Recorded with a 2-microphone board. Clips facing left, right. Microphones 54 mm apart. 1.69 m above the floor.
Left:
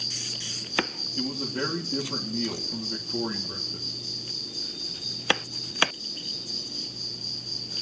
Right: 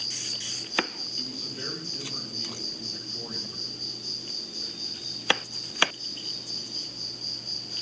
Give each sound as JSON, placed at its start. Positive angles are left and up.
{"t": 0.0, "sound": "an insect", "side_deg": -40, "distance_m": 2.0}
{"t": 1.2, "sound": "a man speaking", "side_deg": 80, "distance_m": 2.5}